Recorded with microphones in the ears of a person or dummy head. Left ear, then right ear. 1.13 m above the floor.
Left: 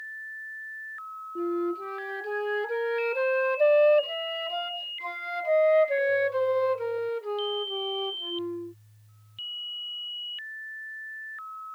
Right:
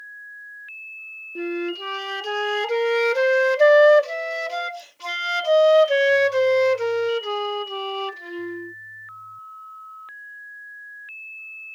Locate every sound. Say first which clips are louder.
1.4 s a flute: right 2 dB; 65° right (ahead or behind)